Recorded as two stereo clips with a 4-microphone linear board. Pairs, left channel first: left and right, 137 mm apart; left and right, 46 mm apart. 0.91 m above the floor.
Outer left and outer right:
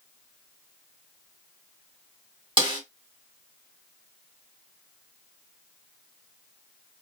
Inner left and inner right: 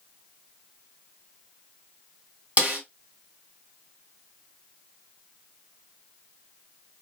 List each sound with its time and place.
2.6 s a snare drum: 35° right (ahead or behind), 1.6 m